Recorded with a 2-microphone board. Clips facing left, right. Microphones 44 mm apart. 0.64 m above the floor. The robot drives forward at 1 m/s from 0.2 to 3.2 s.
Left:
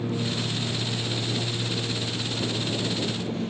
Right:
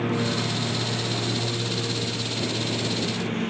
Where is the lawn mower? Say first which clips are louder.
Right 3 dB; 60° right (ahead or behind); by 3.5 s 55° right (ahead or behind).